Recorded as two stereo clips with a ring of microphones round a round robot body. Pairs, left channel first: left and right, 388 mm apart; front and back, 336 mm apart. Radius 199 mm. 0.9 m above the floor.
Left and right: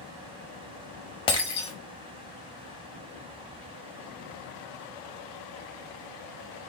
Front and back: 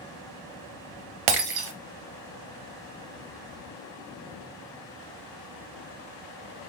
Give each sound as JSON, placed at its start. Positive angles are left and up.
{"t": 1.3, "sound": "breaking glass", "azimuth_deg": 170, "distance_m": 0.6}